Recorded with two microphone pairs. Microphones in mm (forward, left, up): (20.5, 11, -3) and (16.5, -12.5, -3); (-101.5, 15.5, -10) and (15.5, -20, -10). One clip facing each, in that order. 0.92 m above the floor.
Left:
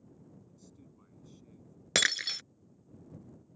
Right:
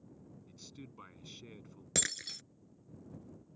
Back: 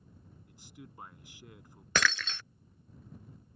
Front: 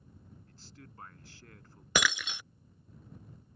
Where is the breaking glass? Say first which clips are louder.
Left 10 dB, even; 60° left.